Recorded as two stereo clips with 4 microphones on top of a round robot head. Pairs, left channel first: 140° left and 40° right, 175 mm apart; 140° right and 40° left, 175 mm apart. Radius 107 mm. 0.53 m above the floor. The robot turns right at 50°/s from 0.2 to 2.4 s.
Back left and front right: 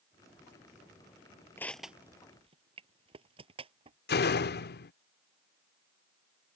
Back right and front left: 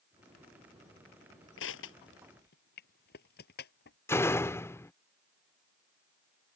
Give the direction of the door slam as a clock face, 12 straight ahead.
7 o'clock.